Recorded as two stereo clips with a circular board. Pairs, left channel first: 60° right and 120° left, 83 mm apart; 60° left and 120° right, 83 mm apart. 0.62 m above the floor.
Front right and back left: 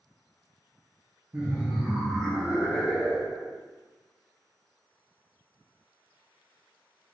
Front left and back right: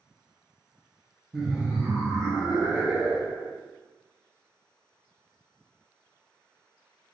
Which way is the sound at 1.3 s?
150° left.